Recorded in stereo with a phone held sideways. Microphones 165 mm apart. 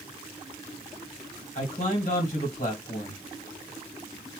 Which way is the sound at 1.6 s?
45° left (ahead or behind).